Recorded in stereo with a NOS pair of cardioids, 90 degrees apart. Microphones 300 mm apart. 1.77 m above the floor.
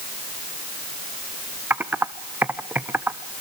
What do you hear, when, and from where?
1.7 s typing on a keyboard: 5° right, 1.0 m